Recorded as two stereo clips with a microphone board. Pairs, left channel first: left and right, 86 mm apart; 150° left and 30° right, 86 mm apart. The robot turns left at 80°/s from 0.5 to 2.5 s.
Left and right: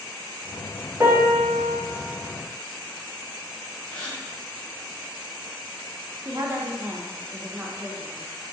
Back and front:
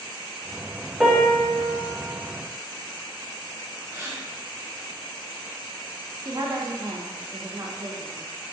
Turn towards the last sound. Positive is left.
turn(degrees=-35)